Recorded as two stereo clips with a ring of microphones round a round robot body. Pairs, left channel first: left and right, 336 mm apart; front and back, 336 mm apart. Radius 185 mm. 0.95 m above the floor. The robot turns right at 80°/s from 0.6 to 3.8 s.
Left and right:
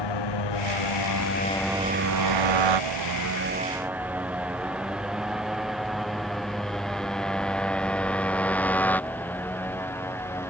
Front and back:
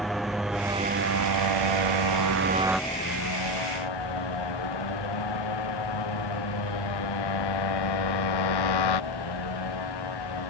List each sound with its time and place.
0.0 s a motorcycle: 90° left; by 10.5 s 5° left